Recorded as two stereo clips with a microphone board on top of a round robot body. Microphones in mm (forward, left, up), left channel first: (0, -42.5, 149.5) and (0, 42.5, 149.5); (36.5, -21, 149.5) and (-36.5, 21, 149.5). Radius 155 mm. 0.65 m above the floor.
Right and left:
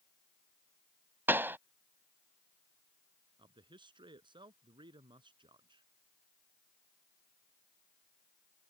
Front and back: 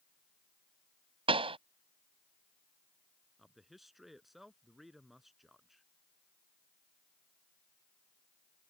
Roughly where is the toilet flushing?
I don't hear a toilet flushing.